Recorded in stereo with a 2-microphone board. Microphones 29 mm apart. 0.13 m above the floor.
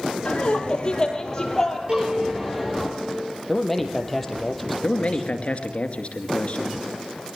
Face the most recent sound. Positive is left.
turn(degrees=50)  # may be behind; listen again after turning